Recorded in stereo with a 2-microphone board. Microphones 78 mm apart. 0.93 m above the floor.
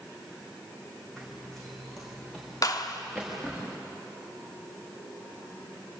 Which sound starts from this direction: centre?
Running footsteps, at 1.2 s.